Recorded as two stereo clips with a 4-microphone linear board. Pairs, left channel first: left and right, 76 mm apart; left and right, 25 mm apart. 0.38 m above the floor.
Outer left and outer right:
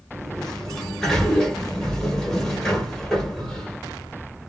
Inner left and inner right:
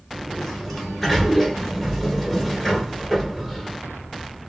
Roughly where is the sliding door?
Centre.